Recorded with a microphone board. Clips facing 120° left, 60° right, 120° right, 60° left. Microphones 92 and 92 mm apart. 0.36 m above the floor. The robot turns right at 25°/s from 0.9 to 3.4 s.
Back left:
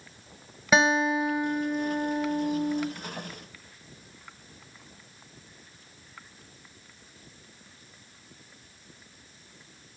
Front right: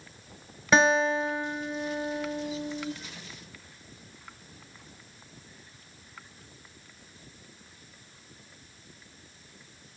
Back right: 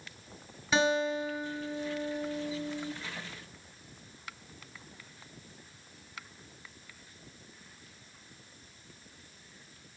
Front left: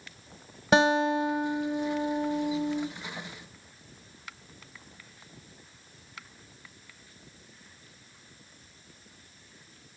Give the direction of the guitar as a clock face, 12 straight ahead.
11 o'clock.